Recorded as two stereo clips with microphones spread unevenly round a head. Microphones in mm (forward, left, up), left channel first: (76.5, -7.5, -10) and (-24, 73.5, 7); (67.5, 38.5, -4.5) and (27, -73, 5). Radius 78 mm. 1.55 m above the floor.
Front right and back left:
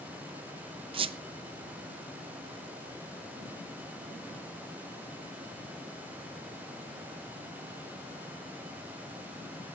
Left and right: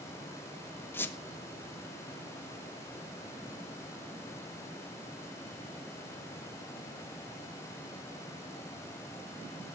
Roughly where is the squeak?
Behind left.